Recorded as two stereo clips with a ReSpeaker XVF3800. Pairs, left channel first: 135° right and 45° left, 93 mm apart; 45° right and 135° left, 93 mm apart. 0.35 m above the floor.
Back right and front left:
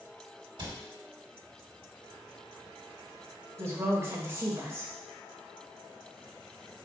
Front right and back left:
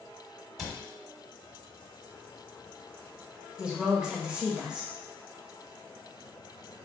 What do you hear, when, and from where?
0.6 s a cupboard door: 50° left, 1.4 m
3.6 s a woman speaking: 60° left, 0.9 m